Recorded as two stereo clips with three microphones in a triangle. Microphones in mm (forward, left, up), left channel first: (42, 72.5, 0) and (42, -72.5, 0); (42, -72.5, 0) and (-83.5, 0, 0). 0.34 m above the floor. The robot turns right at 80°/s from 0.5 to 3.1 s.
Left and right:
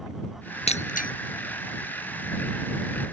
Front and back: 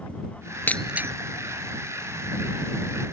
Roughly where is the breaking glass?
Ahead left.